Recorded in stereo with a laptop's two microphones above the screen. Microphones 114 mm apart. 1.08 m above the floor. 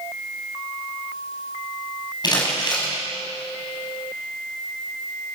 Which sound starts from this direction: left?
Crumpling, at 2.2 s.